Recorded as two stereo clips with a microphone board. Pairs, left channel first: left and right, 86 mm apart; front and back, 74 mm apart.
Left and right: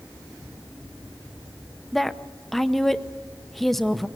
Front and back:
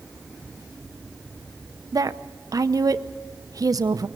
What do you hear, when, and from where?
1.9 s a woman speaking: 175° left, 0.8 m